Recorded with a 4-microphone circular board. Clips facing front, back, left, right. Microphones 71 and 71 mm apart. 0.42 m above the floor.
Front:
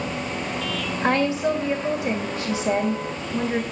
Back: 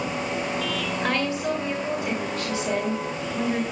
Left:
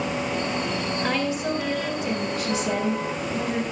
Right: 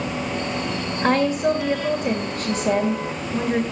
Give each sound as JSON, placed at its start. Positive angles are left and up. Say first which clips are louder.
{"t": 1.0, "sound": "a woman speaking", "louder": "front 6 dB, right 9 dB", "azimuth_deg": -65, "distance_m": 2.0}